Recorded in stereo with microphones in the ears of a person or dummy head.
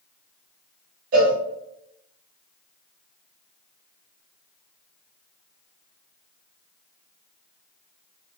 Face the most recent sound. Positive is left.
turn(degrees=-45)  # may be behind; listen again after turning